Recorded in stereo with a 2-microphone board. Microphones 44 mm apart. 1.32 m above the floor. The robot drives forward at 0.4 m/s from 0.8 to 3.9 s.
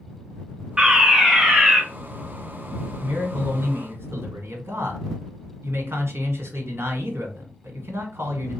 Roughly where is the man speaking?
Right.